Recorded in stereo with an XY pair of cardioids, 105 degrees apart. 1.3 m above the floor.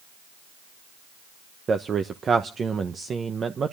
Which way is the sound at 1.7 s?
40° right.